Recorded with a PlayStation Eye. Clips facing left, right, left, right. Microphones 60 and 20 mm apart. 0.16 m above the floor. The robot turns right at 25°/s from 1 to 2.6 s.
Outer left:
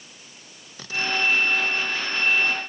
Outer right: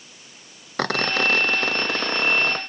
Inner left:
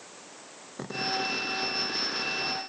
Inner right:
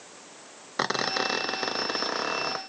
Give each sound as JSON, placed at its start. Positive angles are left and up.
{"t": 0.8, "sound": "a squeak", "azimuth_deg": -110}